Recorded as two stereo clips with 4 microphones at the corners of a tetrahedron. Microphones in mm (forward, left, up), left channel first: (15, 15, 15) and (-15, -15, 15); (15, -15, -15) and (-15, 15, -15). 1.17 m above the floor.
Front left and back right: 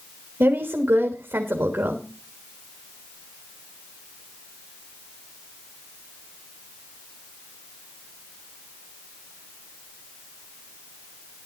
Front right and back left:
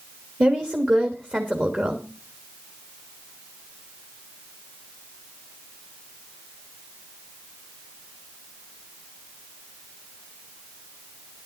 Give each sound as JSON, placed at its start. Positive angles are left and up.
{"t": 0.4, "sound": "a woman speaking", "azimuth_deg": -175, "distance_m": 1.6}